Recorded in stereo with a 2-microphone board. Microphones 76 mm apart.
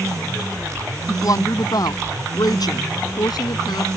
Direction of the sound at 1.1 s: 50° left (ahead or behind).